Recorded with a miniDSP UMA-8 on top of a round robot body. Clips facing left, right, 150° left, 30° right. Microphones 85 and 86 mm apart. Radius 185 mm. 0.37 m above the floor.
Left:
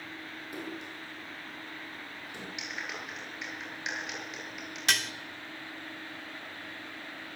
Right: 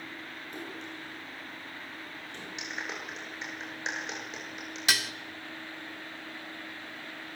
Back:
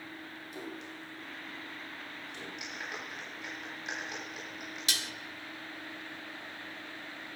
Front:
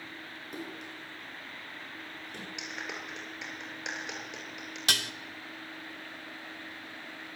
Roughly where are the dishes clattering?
Ahead.